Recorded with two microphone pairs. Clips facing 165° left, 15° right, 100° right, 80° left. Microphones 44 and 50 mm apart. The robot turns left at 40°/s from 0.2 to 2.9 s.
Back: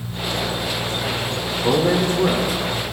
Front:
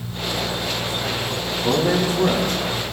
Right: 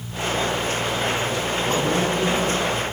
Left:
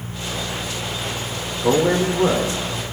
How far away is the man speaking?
About 3.5 m.